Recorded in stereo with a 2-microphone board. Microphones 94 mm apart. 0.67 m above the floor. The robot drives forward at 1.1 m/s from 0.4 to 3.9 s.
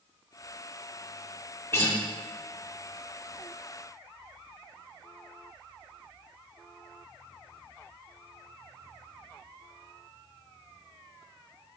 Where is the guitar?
30° left (ahead or behind), 2 m; by 2.0 s 25° left (ahead or behind), 2 m.